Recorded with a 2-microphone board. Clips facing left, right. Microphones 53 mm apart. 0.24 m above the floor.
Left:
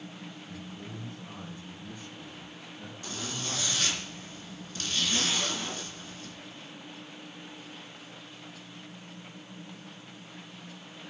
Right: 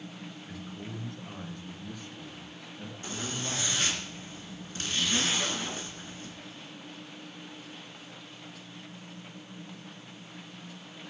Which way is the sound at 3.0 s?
30° right (ahead or behind).